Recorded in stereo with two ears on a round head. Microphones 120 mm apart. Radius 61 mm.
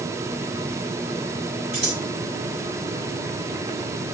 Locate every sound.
1.7 s scissors: 45° right (ahead or behind), 3 m